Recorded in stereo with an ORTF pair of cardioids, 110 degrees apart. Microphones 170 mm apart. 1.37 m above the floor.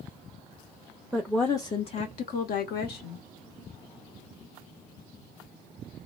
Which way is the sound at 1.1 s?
5° right.